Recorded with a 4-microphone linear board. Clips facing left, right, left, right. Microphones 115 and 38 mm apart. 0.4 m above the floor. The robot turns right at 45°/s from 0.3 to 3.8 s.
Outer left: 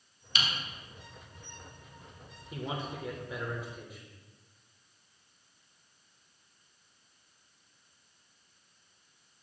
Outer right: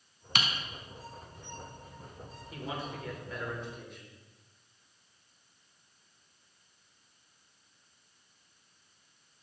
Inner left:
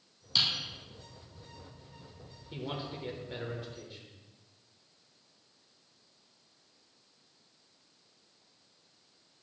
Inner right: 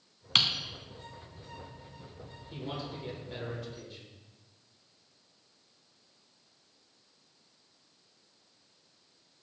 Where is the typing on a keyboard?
75° right (ahead or behind), 0.8 m; by 0.5 s 70° right (ahead or behind), 0.8 m.